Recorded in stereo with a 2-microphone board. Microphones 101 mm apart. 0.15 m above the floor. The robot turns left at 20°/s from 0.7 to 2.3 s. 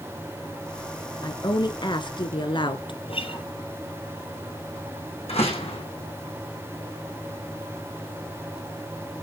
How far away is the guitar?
About 4 m.